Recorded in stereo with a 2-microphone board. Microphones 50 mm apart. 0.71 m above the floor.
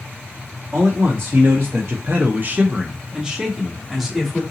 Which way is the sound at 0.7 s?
45° right (ahead or behind).